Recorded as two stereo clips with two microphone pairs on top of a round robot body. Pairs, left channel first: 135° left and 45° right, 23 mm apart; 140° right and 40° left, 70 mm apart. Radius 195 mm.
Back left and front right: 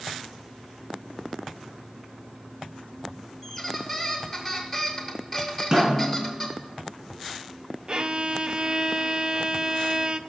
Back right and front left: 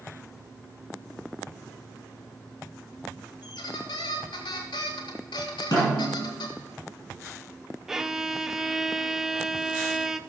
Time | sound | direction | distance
3.4 | a squeak | 140° right | 0.6 m
5.7 | a snare drum | 100° right | 5 m
7.9 | a violin | 35° right | 0.6 m